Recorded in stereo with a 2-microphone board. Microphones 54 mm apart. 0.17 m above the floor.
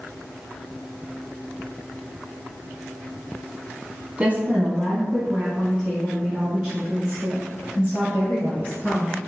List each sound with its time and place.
4.2 s a woman speaking: 20° right (ahead or behind), 1.0 m; by 9.2 s 40° right (ahead or behind), 4 m